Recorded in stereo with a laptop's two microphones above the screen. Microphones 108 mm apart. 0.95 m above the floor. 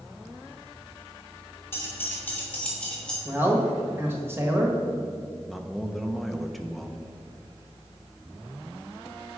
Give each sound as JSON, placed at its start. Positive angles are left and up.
{"t": 1.7, "sound": "keys jangling", "side_deg": 20, "distance_m": 2.5}
{"t": 3.2, "sound": "a man speaking", "side_deg": -20, "distance_m": 1.2}
{"t": 5.5, "sound": "a man speaking", "side_deg": 0, "distance_m": 0.9}